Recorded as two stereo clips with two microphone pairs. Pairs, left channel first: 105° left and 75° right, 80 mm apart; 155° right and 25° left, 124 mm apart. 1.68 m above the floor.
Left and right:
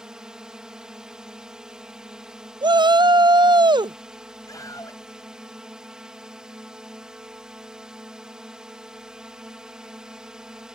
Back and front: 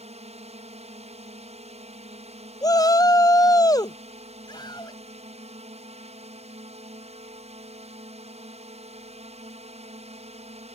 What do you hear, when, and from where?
0.0 s a drone: 5° left
2.6 s a shout: 95° right
4.5 s a scream: 150° left